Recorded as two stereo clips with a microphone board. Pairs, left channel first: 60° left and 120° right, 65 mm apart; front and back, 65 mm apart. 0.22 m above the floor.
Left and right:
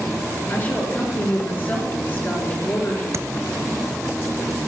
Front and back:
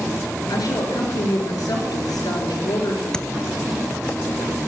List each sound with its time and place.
0.5 s a woman speaking: 5° left, 3.5 m
3.1 s tapping: 80° right, 0.7 m